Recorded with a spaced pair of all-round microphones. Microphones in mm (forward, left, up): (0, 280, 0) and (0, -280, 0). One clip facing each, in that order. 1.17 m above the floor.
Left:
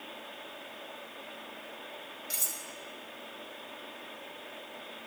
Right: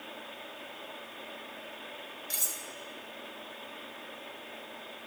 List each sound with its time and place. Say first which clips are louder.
2.3 s cutlery clinking: right 1 dB; 5° left (ahead or behind), 1.1 m